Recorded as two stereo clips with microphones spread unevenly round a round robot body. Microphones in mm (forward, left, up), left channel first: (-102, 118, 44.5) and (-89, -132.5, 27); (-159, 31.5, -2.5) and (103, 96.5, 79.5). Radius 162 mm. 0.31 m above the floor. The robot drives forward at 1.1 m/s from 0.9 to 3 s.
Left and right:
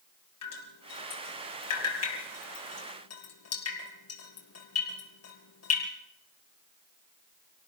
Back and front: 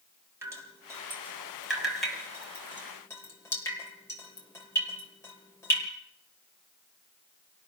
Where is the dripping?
95° left, 6.5 m; by 5.9 s 115° left, 7.5 m.